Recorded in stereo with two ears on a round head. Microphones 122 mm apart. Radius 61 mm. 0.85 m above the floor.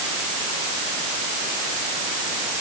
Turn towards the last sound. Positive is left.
No sound to turn to.